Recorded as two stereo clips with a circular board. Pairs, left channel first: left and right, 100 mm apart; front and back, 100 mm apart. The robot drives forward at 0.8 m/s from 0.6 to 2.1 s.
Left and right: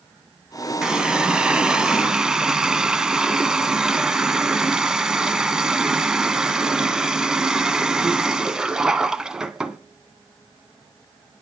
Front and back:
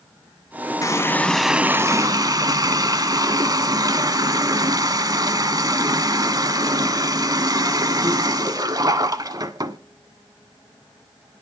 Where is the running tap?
10° right, 0.8 m; by 9.8 s 170° right, 0.9 m.